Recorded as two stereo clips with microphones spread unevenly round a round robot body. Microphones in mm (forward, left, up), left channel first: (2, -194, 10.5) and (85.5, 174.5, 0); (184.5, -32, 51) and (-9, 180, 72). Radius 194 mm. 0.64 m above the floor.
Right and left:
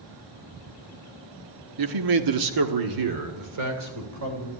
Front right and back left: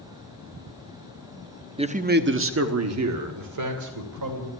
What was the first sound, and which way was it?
A man speaking, 60° left.